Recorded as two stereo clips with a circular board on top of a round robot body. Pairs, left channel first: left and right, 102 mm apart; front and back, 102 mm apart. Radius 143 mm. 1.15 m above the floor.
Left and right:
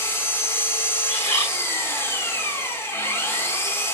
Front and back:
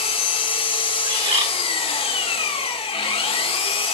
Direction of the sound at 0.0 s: 25° left.